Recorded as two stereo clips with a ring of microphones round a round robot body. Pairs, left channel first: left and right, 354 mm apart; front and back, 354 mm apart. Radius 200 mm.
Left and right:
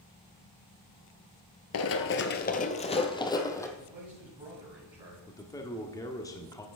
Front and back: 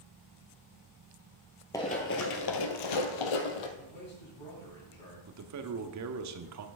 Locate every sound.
1.7 s running footsteps: 75° left, 0.5 m; by 3.7 s 5° left, 1.1 m
3.8 s a man speaking: 15° right, 4 m
5.3 s a man speaking: 170° left, 1.0 m